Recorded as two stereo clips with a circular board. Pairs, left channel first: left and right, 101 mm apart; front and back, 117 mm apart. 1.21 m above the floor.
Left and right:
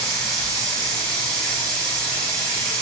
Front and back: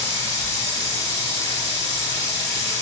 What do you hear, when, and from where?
0.0 s running water: 10° left, 1.1 m